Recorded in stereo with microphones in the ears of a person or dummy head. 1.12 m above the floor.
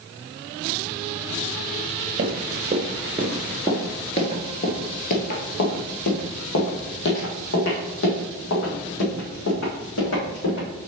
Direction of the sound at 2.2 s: 35° right (ahead or behind).